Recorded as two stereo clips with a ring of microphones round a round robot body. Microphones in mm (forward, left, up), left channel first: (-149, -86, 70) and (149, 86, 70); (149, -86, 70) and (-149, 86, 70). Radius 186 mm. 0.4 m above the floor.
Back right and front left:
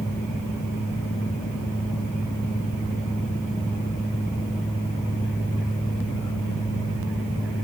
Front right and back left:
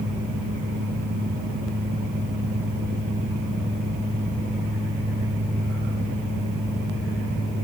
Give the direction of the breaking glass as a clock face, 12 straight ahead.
I don't hear breaking glass.